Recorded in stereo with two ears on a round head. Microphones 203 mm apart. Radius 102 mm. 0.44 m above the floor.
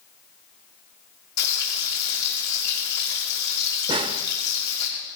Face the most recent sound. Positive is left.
turn(degrees=-20)  # may be behind; listen again after turning